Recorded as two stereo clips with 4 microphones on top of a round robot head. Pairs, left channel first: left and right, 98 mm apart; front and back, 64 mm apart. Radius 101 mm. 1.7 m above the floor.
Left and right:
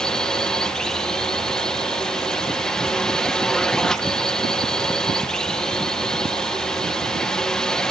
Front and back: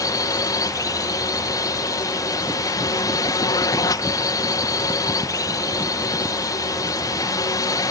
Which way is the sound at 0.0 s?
5° left.